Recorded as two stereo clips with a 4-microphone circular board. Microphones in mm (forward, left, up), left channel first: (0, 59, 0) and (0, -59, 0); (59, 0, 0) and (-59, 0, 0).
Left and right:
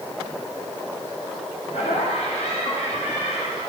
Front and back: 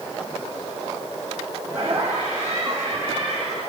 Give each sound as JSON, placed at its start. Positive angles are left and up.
{"t": 1.7, "sound": "laughter", "azimuth_deg": 105, "distance_m": 8.0}